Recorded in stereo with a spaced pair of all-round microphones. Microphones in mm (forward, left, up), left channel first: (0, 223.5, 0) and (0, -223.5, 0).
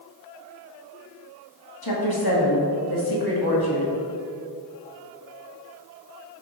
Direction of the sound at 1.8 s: 55° left (ahead or behind).